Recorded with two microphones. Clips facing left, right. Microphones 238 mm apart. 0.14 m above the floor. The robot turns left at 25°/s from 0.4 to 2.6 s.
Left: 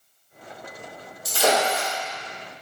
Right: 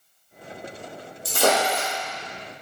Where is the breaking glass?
65° right (ahead or behind), 1.8 m; by 1.9 s 50° right (ahead or behind), 1.8 m.